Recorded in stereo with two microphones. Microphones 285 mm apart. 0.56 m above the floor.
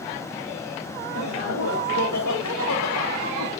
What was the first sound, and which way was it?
Laughter, 70° left (ahead or behind).